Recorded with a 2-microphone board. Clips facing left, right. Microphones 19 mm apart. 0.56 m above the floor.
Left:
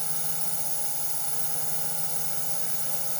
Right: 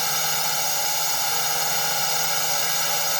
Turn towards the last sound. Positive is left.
turn(degrees=-55)  # may be behind; listen again after turning